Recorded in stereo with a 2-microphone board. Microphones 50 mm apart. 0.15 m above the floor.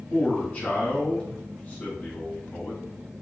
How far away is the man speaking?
About 1.7 m.